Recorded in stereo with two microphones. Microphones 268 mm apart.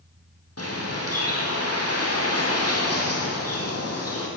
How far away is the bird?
About 3 m.